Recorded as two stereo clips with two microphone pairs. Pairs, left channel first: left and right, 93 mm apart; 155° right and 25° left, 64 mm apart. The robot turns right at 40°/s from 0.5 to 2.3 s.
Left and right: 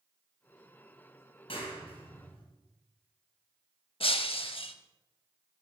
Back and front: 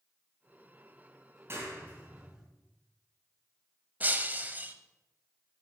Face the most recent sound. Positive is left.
turn(degrees=90)